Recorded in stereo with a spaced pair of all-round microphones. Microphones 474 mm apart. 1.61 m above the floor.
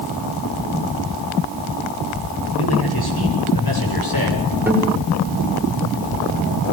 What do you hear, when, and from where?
2.5 s a man speaking: 55° left (ahead or behind), 10 m; by 4.5 s 45° left (ahead or behind), 7 m
4.7 s a guitar: 5° right (ahead or behind), 7 m